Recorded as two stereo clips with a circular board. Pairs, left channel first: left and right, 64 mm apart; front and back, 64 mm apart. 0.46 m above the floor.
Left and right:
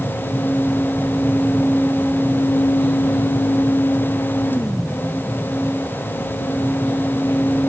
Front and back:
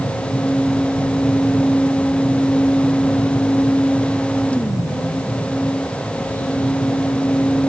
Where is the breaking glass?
I don't hear breaking glass.